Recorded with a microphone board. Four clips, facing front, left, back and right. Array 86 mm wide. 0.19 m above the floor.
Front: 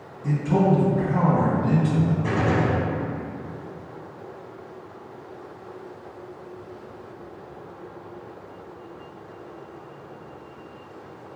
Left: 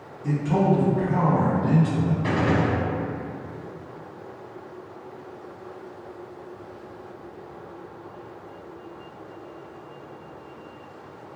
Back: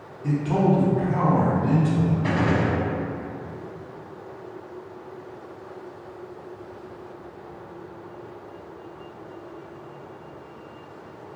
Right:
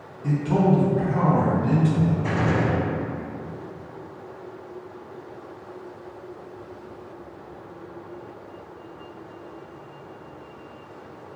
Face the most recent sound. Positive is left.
turn(degrees=130)